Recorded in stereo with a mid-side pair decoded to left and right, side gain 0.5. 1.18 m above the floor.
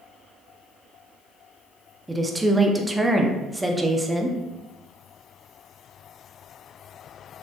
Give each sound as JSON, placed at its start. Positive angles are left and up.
{"t": 2.1, "sound": "a woman speaking", "azimuth_deg": -10, "distance_m": 0.5}